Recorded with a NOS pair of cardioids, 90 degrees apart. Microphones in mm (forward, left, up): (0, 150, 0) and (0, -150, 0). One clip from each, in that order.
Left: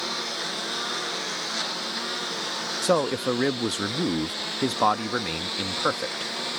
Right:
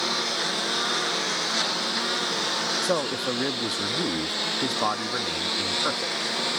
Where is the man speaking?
25° left.